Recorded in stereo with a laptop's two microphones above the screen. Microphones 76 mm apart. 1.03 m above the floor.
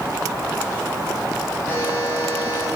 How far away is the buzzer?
About 7 m.